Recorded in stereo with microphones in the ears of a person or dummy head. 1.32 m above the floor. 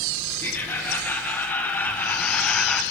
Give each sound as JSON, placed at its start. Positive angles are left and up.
{"t": 0.4, "sound": "laughter", "side_deg": 15, "distance_m": 3.0}